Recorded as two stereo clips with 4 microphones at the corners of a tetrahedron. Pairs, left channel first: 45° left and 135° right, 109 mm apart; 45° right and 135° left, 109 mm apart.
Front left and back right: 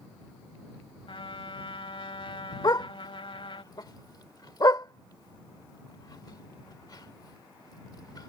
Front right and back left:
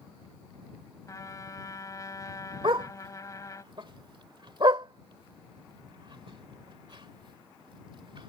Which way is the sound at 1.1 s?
10° left.